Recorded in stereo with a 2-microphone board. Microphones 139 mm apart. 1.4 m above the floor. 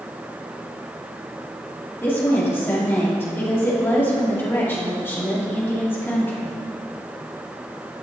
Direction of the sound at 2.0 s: 15° left (ahead or behind).